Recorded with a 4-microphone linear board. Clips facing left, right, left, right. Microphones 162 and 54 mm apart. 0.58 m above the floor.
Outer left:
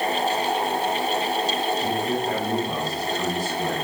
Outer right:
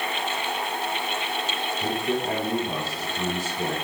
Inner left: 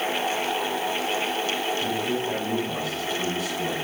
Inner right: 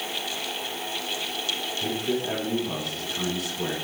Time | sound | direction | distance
1.8 | a man speaking | 70° right (ahead or behind) | 3.5 m